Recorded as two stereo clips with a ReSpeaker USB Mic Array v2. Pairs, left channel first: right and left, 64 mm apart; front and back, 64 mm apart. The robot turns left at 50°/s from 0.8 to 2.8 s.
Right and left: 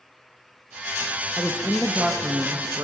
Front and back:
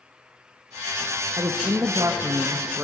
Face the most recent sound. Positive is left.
turn(degrees=120)